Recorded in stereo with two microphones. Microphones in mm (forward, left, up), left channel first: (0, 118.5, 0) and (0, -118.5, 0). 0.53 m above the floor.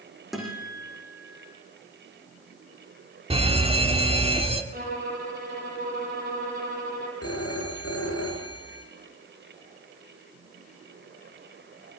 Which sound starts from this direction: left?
A phone ringing, at 7.2 s.